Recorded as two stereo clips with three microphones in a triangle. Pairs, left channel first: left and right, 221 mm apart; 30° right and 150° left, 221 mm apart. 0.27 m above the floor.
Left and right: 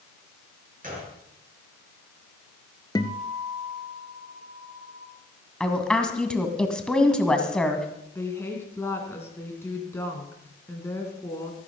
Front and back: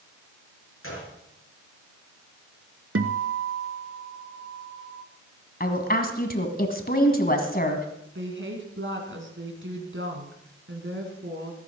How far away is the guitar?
About 0.8 m.